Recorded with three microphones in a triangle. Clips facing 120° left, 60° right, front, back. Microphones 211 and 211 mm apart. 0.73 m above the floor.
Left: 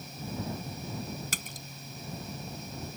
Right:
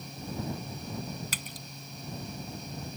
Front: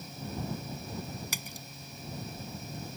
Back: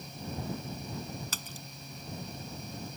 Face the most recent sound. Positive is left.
turn(degrees=75)